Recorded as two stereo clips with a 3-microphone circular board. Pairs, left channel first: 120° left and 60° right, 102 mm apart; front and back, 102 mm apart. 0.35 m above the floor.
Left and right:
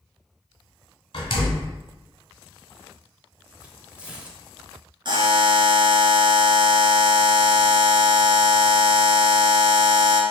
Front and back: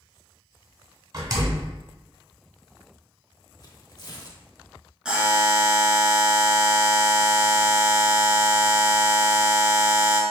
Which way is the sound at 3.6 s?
15° left.